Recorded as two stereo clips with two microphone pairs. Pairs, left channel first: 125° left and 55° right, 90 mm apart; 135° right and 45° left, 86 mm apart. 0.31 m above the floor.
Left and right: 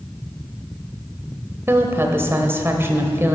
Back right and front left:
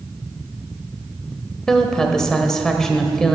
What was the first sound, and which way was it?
A woman speaking, 60° right.